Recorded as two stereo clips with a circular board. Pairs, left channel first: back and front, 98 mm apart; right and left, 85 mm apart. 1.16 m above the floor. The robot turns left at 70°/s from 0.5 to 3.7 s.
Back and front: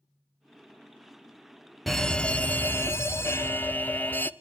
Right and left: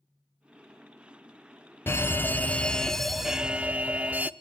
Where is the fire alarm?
95° right, 0.9 m; by 4.3 s 140° left, 0.9 m.